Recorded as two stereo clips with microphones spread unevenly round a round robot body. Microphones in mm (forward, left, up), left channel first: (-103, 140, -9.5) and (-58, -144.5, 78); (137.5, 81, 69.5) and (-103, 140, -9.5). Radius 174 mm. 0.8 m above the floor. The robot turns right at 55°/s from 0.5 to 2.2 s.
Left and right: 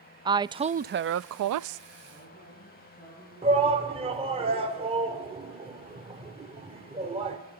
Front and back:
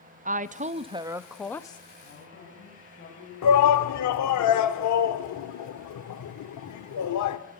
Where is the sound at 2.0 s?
20° left, 6 m; by 3.3 s 30° left, 6 m.